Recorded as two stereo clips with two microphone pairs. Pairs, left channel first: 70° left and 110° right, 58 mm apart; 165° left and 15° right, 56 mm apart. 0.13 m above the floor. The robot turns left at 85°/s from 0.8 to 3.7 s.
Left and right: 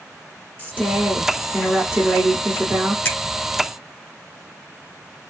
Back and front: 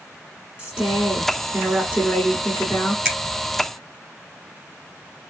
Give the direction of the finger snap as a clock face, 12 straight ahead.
10 o'clock.